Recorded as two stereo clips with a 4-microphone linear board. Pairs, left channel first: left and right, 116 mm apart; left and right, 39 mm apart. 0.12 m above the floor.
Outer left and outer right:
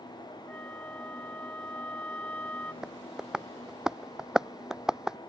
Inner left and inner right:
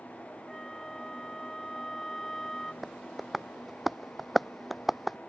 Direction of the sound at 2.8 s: 5° right (ahead or behind).